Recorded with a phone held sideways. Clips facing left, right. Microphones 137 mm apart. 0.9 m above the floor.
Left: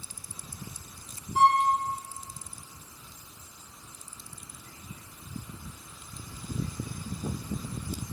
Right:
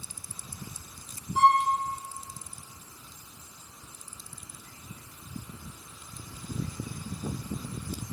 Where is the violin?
35° left (ahead or behind), 7 m.